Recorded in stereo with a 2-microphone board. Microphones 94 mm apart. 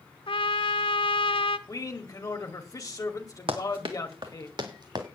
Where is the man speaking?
40° left (ahead or behind), 1.7 m.